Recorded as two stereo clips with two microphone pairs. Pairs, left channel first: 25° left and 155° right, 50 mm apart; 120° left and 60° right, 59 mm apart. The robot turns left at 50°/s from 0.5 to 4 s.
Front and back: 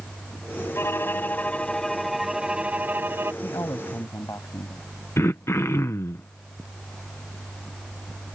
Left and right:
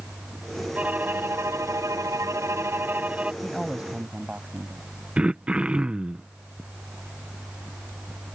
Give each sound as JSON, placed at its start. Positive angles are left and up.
{"t": 0.8, "sound": "a violin", "azimuth_deg": 5}
{"t": 3.4, "sound": "a man speaking", "azimuth_deg": 35}
{"t": 5.2, "sound": "throat clearing", "azimuth_deg": 10}